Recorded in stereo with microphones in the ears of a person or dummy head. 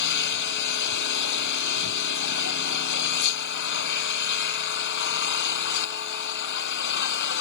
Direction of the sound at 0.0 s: 60° left (ahead or behind).